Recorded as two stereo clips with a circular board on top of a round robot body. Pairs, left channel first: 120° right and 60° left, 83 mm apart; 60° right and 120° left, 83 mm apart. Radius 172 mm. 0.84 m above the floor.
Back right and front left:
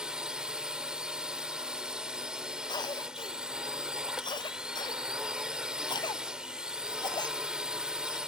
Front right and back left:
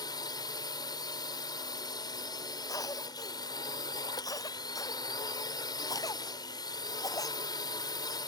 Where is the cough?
100° right.